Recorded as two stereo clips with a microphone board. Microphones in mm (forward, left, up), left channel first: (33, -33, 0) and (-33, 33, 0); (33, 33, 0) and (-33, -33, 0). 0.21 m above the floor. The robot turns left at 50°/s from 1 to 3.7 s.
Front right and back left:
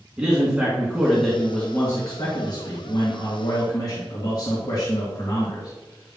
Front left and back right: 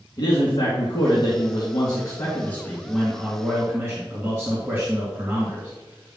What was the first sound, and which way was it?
A man speaking, 55° left.